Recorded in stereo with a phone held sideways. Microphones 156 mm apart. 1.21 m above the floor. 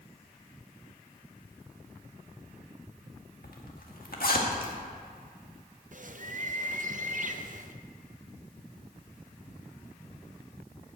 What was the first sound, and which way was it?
A zipper, 70° left (ahead or behind).